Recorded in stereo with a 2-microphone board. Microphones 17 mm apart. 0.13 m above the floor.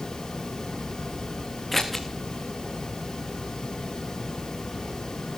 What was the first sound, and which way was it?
Scissors, 15° left (ahead or behind).